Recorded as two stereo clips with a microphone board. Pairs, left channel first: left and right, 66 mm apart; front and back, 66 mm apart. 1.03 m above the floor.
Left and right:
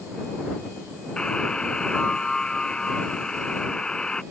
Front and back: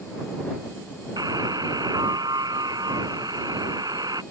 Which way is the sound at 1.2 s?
170° left.